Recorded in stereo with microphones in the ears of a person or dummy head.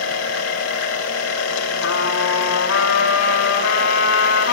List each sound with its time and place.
0.0 s a machine running: 75° left (ahead or behind), 2.5 m
1.8 s a trumpet: 80° left, 3 m